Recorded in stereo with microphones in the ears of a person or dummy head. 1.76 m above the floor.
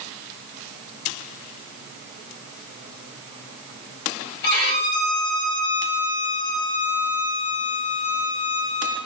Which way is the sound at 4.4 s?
50° left (ahead or behind).